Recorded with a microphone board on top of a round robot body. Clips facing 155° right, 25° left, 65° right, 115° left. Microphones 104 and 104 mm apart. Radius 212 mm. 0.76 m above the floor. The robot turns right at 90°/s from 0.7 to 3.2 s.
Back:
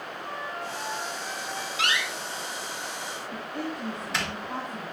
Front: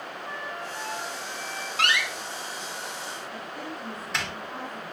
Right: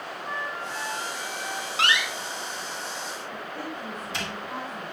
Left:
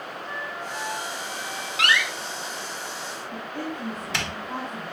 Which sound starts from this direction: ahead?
A door slam, at 1.8 s.